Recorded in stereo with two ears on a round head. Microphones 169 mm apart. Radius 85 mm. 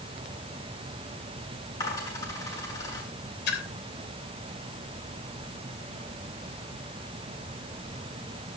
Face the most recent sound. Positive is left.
turn(degrees=60)  # may be behind; listen again after turning